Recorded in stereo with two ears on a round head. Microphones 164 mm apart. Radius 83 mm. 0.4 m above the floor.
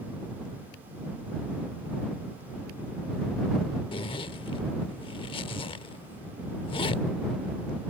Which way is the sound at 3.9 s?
30° left (ahead or behind).